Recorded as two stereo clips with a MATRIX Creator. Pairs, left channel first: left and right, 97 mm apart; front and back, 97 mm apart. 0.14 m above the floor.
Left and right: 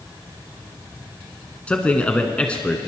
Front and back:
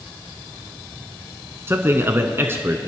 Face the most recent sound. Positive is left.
turn(degrees=155)